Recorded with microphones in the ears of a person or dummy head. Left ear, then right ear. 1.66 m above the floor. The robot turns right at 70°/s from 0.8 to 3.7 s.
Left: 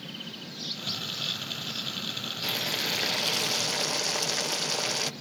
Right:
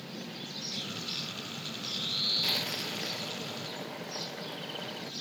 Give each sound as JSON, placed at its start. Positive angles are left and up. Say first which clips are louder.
{"t": 2.4, "sound": "boiling", "louder": "left 2 dB", "azimuth_deg": -10}